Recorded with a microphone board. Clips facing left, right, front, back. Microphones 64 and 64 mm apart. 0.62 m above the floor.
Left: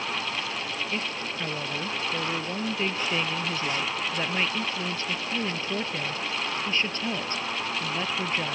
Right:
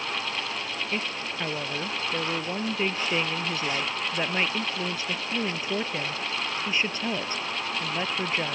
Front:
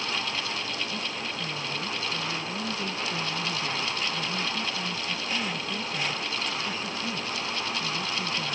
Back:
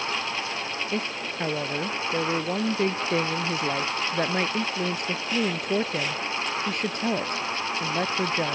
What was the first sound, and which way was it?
A woman speaking, 165° right.